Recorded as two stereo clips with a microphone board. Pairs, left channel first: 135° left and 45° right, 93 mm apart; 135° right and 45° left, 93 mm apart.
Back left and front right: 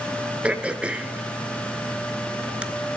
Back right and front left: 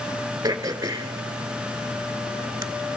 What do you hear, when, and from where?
0.4 s throat clearing: 25° left, 0.5 m